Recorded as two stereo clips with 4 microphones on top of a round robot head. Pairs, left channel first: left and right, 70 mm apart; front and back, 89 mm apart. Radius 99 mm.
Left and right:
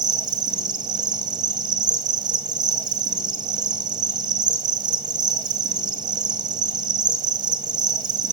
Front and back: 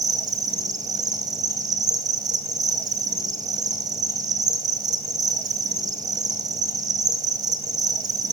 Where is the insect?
125° right, 1.7 m.